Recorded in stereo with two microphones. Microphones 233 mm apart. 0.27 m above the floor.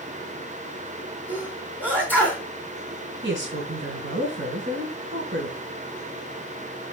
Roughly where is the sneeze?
Centre.